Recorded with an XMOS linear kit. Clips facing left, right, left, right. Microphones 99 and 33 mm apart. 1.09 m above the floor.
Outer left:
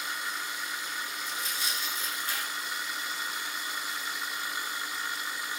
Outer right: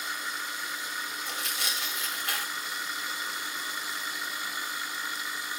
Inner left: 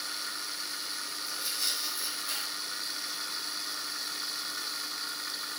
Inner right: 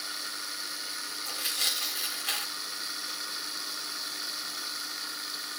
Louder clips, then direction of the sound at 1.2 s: Outer right 1 dB, inner right 4 dB; 80° right.